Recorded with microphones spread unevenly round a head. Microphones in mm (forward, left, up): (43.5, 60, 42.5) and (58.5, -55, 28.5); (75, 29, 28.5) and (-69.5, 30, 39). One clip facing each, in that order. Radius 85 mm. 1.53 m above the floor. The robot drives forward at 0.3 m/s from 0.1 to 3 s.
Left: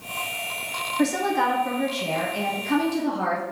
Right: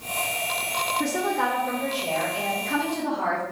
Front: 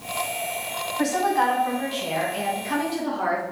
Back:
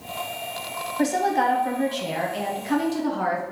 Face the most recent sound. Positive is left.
turn(degrees=145)